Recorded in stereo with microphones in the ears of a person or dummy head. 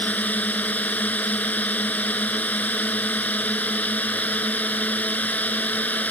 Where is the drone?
10° left (ahead or behind).